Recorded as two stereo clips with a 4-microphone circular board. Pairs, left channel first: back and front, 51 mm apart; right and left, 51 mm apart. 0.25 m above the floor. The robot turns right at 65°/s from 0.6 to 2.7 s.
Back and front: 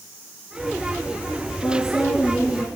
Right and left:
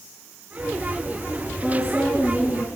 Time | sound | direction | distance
1.6 | a woman speaking | 175° left | 2 m